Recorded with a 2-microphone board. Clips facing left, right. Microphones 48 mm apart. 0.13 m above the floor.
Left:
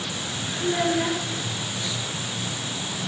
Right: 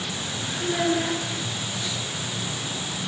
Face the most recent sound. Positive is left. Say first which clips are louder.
# left 1 dB
turn(degrees=5)  # may be behind; listen again after turning